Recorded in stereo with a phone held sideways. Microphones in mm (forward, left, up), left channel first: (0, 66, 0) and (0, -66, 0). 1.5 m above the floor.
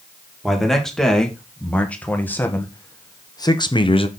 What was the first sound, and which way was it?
A man speaking, centre (ahead or behind).